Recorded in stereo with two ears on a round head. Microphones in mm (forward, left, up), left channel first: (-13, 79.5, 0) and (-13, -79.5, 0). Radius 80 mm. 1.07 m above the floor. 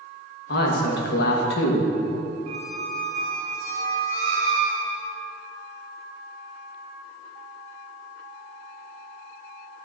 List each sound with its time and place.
0.5 s a man speaking: 65° left (ahead or behind), 1.3 m
2.5 s a squeak: 55° right (ahead or behind), 1.9 m